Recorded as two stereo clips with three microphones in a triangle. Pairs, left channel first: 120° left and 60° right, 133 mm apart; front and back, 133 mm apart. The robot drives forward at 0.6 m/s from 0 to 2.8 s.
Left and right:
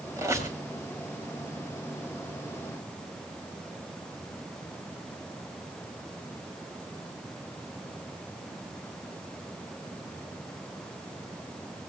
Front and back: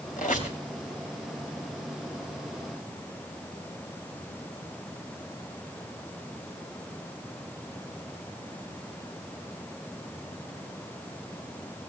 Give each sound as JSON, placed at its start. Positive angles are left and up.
{"t": 0.2, "sound": "a squeak", "azimuth_deg": 5, "distance_m": 3.5}